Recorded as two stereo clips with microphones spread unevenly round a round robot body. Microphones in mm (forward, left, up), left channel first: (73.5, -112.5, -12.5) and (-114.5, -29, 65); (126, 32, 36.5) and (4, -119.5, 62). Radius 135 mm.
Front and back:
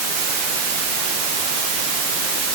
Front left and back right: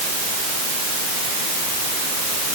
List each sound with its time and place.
Only background noise.